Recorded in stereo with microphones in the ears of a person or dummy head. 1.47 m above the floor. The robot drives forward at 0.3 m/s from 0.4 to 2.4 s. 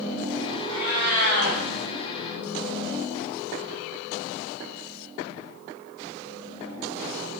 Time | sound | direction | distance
0.7 | a cat meowing | 65° left (ahead or behind) | 1.5 m